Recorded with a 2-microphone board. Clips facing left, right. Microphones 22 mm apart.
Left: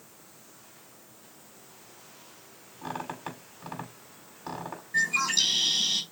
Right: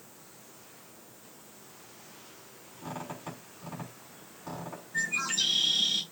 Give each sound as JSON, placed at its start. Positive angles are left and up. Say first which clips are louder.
{"t": 2.8, "sound": "a squeak", "louder": "left 4 dB", "side_deg": 65, "distance_m": 5.5}
{"t": 4.9, "sound": "a bird", "louder": "left 5 dB", "side_deg": 80, "distance_m": 3.5}